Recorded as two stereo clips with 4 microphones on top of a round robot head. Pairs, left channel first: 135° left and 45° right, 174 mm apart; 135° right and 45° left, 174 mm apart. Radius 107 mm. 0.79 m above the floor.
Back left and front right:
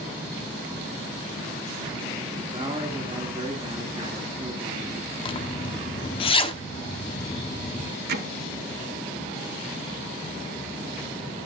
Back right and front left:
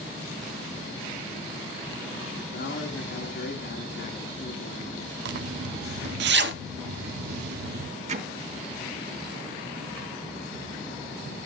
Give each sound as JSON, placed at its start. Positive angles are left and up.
{"t": 2.5, "sound": "a man speaking", "azimuth_deg": -110, "distance_m": 2.0}
{"t": 5.2, "sound": "a zipper", "azimuth_deg": 70, "distance_m": 0.9}
{"t": 8.1, "sound": "hammering", "azimuth_deg": -5, "distance_m": 1.1}